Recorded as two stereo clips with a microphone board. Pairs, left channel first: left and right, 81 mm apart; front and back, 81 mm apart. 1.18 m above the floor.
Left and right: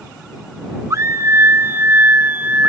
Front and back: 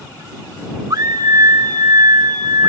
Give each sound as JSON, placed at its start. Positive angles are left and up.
{"t": 0.9, "sound": "a scream", "azimuth_deg": -140}